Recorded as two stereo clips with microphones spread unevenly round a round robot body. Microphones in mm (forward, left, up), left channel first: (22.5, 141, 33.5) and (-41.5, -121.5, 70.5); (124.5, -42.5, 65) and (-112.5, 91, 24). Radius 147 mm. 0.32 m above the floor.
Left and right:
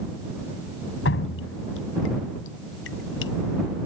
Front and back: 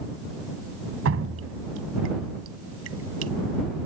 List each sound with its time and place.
1.1 s dripping: 115° left